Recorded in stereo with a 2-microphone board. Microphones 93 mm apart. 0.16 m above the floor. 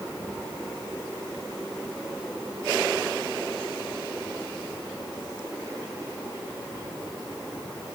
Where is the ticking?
No ticking in this recording.